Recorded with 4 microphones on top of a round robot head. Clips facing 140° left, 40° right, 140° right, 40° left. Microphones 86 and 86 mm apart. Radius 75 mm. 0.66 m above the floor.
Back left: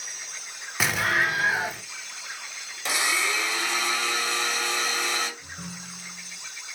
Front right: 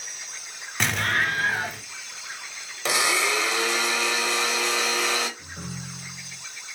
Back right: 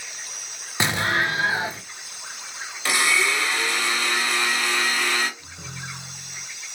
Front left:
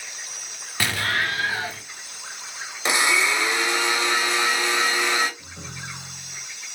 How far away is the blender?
About 1.7 m.